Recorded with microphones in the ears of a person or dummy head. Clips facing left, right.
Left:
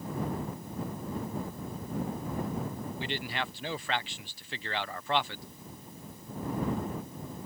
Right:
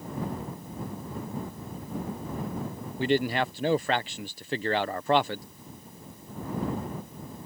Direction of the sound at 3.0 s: 45° right (ahead or behind).